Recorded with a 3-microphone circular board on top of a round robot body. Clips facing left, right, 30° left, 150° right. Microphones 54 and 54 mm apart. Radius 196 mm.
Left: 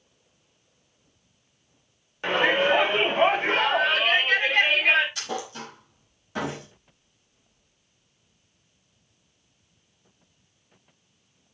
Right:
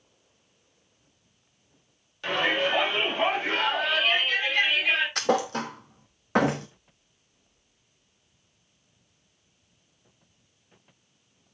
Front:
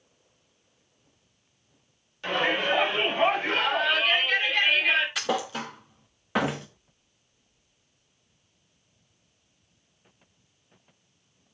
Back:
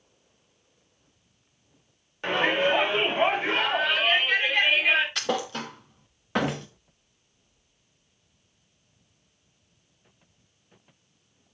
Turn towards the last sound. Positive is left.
turn(degrees=-55)